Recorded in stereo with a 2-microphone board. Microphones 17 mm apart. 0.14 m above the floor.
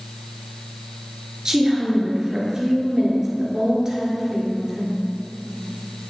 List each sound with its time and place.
1.4 s a woman speaking: 25° right (ahead or behind), 2 m